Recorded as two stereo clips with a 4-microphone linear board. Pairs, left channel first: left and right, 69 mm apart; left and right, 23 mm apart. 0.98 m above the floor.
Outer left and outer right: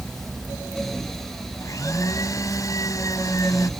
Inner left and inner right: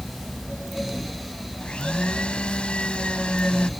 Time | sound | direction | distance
1.6 | a blender | 55° left (ahead or behind) | ?